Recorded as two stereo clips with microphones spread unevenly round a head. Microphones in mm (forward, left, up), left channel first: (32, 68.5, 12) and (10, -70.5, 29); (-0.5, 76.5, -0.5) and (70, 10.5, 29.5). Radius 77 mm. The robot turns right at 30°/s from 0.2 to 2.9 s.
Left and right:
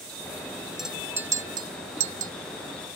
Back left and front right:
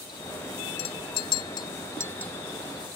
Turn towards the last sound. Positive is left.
turn(degrees=-125)